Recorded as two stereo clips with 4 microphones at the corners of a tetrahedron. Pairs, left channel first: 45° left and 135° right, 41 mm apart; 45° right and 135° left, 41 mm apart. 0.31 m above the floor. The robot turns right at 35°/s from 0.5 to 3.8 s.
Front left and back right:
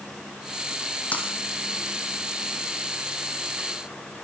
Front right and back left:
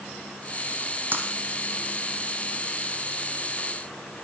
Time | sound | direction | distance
1.1 | breaking glass | 100° left | 5 m